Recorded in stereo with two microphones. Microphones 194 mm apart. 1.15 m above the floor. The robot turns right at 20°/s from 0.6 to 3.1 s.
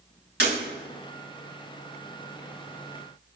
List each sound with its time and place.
0.4 s breaking glass: 70° right (ahead or behind), 4 m